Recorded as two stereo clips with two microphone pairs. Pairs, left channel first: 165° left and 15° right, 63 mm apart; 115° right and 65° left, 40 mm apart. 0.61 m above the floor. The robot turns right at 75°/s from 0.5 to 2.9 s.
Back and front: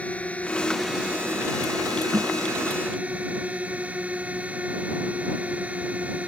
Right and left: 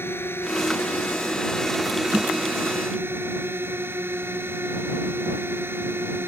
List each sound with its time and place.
0.0 s a drone: 125° right; by 6.3 s 55° left
2.1 s a snare drum: straight ahead; by 2.3 s 15° left